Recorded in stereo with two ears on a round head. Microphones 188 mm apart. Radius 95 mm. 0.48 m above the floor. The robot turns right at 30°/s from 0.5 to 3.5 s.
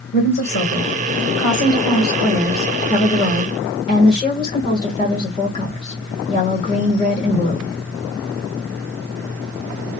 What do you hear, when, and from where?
0.1 s a woman speaking: 55° left, 2 m; by 7.7 s 145° left, 2 m